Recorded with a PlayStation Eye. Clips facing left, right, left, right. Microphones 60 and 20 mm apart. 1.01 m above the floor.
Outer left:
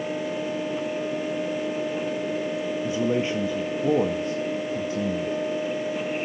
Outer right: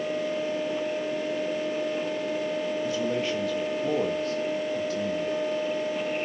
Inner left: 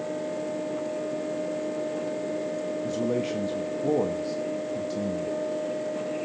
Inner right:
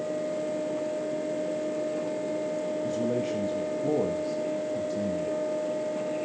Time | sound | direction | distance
2.8 | a man speaking | 25° left (ahead or behind) | 1.5 m